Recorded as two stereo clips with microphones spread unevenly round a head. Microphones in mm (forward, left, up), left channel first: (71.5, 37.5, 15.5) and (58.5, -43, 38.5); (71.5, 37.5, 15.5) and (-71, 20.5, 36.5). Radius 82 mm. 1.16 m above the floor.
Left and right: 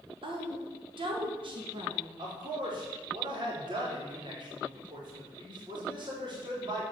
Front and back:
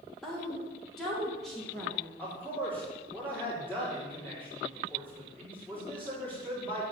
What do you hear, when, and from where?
0.2 s a woman speaking: 80° right, 2 m
2.2 s a man speaking: 75° right, 4.5 m